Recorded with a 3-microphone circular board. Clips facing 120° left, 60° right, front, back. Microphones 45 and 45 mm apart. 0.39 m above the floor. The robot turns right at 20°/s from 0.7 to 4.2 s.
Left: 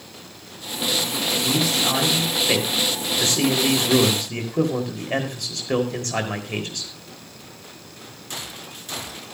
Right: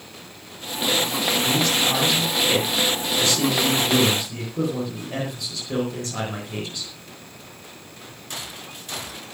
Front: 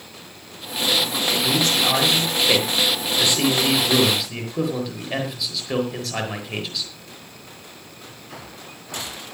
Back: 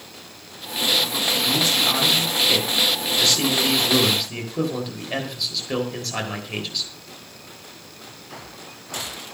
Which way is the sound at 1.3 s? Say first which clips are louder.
Even, front 1 dB; 30° left.